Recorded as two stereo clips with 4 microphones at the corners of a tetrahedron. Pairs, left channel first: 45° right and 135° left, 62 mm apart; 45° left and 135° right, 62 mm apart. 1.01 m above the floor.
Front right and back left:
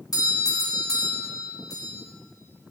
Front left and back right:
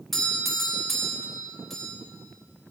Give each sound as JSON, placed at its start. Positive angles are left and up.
{"t": 0.1, "sound": "a doorbell", "azimuth_deg": -40, "distance_m": 3.0}